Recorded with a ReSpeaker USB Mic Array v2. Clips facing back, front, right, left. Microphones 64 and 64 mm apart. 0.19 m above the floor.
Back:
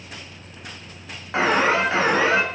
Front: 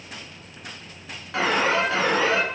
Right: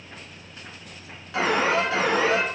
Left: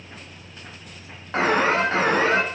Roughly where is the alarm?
Behind left.